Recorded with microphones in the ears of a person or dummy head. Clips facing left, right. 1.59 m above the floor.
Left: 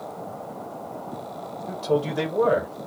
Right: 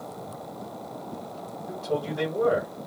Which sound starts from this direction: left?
A man speaking, at 1.7 s.